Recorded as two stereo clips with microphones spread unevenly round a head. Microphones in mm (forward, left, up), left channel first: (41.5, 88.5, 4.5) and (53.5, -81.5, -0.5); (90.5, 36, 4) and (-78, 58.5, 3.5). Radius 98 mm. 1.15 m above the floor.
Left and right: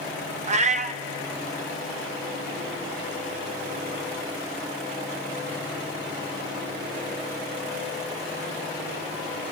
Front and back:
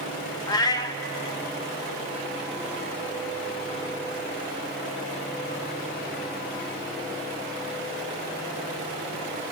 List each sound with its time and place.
0.5 s a cat meowing: 65° right, 0.6 m